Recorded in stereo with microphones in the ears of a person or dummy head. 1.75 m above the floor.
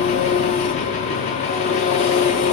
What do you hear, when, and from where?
0.0 s an engine running: 30° left (ahead or behind), 0.7 m